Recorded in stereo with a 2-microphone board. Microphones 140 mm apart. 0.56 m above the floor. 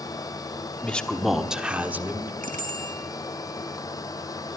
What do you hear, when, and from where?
0.8 s a man speaking: 10° left (ahead or behind), 1.1 m; by 2.3 s 15° right (ahead or behind), 1.5 m
2.4 s a bicycle bell: 70° right (ahead or behind), 4 m